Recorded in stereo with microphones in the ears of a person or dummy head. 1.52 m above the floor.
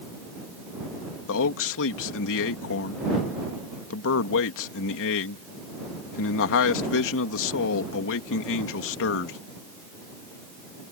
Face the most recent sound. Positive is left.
turn(degrees=60)  # may be behind; listen again after turning